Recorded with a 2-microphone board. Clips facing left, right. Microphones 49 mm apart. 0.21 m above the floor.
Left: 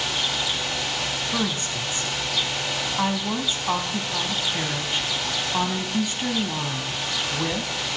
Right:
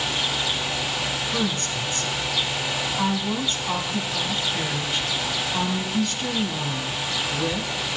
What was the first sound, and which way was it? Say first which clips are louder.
A woman speaking: right 1 dB; 20° left (ahead or behind).